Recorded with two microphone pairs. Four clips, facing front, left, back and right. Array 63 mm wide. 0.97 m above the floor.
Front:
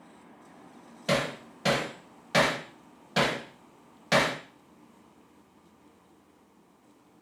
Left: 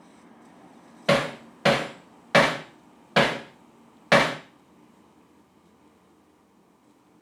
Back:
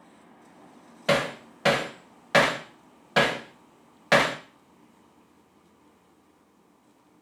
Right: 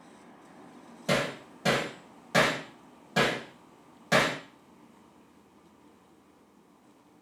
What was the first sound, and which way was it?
Hammering, 130° left.